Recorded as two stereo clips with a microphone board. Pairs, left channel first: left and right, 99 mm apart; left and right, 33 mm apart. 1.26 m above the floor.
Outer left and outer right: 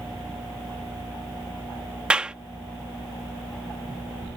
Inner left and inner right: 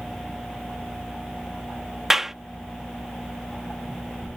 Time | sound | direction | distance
2.1 | a clap | 10° right (ahead or behind) | ?